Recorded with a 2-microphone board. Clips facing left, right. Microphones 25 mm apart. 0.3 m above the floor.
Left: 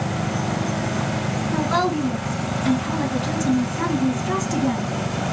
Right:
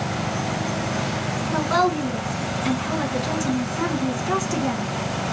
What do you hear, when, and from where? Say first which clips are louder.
1.5 s a woman speaking: right 1 dB; 10° right (ahead or behind), 3.5 m